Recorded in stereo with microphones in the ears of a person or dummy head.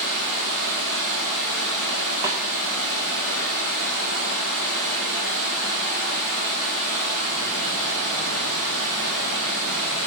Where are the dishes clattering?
I don't hear dishes clattering.